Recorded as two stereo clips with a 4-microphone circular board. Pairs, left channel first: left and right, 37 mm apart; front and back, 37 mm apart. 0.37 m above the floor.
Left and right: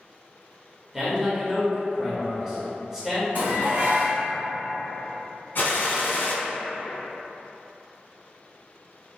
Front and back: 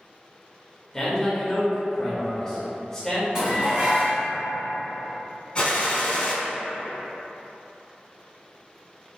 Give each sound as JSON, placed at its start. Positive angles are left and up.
{"t": 0.9, "sound": "a man speaking", "azimuth_deg": -35, "distance_m": 1.0}
{"t": 3.4, "sound": "dishes clattering", "azimuth_deg": -120, "distance_m": 1.7}
{"t": 5.5, "sound": "a gunshot", "azimuth_deg": 65, "distance_m": 0.8}